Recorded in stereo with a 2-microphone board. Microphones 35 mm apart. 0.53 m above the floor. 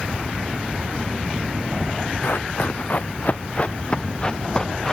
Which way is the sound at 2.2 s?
65° left (ahead or behind).